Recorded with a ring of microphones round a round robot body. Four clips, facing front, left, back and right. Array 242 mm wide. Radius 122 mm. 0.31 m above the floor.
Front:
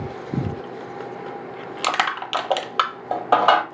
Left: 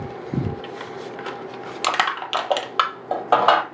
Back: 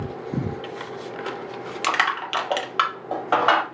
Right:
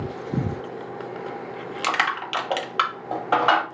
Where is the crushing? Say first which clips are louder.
Left 2 dB, even; 45° left, 0.8 m.